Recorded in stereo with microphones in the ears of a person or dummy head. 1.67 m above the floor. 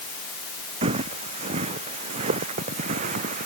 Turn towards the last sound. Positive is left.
turn(degrees=-50)  # may be behind; listen again after turning